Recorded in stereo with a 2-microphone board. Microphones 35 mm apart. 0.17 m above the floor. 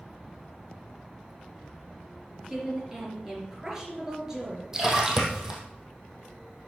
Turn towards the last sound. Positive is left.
turn(degrees=-15)  # may be behind; listen again after turning